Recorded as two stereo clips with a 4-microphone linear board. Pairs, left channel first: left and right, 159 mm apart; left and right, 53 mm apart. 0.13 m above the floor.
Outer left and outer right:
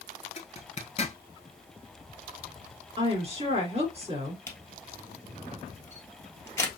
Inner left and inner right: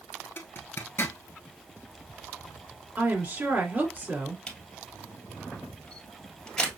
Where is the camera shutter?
15° left (ahead or behind), 1.6 m.